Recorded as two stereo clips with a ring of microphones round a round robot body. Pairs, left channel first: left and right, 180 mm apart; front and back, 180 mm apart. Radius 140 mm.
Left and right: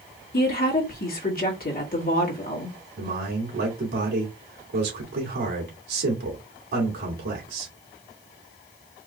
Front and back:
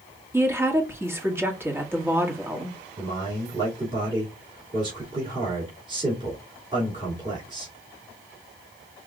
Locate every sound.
0.3 s a woman speaking: 105° left, 1.8 m
3.0 s a man speaking: 115° right, 2.5 m